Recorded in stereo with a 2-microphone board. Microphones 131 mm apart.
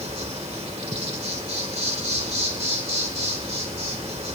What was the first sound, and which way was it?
An insect, 55° right (ahead or behind).